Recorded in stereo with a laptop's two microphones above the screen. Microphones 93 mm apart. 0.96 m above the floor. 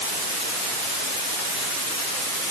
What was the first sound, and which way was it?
Only background noise.